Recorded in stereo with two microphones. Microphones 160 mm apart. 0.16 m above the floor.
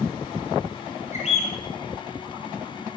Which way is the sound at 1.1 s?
50° left (ahead or behind).